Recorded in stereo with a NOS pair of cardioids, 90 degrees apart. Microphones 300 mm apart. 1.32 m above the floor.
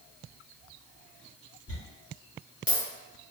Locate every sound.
1.7 s a dropped coin: 25° left, 1.8 m